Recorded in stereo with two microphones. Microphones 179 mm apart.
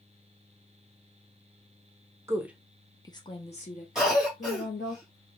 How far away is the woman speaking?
About 0.7 m.